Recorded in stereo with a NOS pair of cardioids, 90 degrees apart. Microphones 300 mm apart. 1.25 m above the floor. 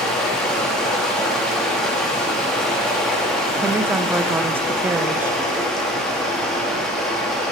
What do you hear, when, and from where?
0.0 s running water: straight ahead, 1.4 m
3.6 s a woman speaking: 5° right, 0.5 m